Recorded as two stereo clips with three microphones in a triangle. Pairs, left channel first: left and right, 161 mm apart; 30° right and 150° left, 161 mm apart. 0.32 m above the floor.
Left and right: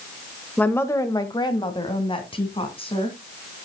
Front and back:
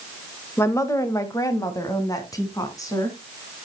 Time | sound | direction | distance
0.6 | a woman speaking | 20° left | 1.0 m